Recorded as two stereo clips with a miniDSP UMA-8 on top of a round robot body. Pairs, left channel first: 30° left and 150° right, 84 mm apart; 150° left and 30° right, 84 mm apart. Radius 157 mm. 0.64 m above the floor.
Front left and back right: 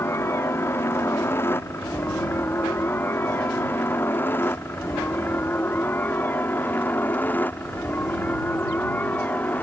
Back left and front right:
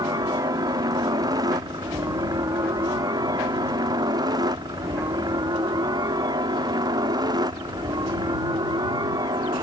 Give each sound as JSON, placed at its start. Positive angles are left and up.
{"t": 0.0, "sound": "a helicopter", "azimuth_deg": -20}